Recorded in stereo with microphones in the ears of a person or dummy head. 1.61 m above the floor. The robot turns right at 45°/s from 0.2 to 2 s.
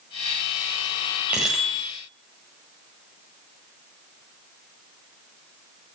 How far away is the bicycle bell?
About 6 m.